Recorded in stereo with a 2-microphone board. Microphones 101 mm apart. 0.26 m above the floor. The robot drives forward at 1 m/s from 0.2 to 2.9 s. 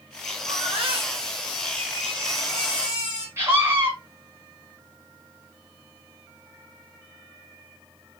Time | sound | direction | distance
0.5 | a baby crying | 65° right (ahead or behind) | 3.5 m
3.4 | a scream | 25° right (ahead or behind) | 3 m